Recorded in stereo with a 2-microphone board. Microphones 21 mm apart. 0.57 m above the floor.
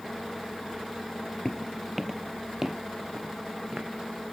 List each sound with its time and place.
1.4 s footsteps: 20° left (ahead or behind), 0.6 m; by 3.9 s 30° right (ahead or behind), 2 m